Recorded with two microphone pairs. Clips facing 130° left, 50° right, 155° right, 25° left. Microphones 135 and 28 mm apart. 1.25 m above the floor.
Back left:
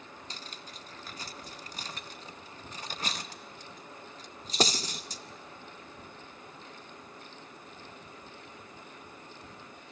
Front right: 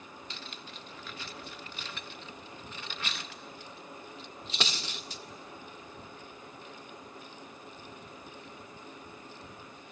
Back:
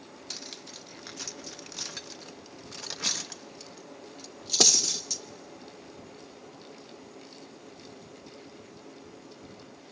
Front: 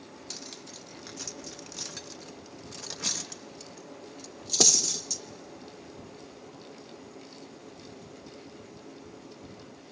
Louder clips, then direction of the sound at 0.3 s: Front right 1 dB, back 2 dB; 145° left.